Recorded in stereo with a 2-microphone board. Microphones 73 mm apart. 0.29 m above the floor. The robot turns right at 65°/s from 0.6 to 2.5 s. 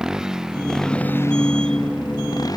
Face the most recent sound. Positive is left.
turn(degrees=60)  # may be behind; listen again after turning